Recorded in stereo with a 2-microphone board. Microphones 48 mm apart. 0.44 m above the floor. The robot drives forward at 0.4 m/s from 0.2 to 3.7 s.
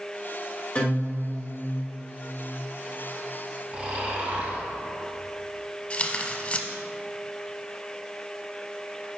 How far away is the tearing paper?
About 0.6 m.